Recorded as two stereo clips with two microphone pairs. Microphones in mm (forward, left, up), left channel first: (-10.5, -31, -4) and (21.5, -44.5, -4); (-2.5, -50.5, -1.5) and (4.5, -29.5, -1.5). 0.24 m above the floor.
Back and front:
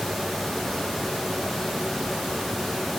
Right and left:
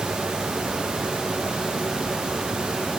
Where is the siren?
I don't hear a siren.